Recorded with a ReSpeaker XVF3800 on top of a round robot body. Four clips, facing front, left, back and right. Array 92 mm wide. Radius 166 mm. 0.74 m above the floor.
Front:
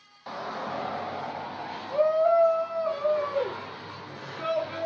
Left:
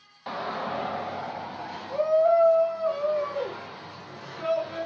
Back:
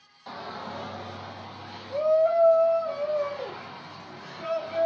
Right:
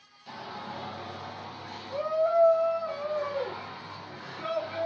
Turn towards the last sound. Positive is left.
turn(degrees=10)